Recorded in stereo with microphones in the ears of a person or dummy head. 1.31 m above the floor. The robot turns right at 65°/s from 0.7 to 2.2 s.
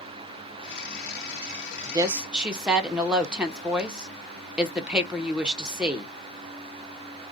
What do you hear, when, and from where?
1.9 s a woman speaking: 30° right (ahead or behind), 0.6 m; by 6.1 s 10° right (ahead or behind), 0.6 m